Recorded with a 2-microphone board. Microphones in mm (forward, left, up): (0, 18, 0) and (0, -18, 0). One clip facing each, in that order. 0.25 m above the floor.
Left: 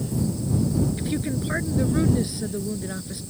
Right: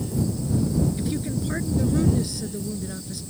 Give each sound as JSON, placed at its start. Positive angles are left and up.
{"t": 1.0, "sound": "a woman speaking", "side_deg": 20}